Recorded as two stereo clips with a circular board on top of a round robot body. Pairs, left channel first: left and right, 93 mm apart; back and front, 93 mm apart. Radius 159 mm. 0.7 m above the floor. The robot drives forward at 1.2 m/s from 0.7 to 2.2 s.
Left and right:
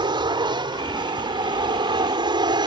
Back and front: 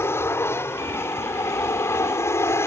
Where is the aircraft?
120° right.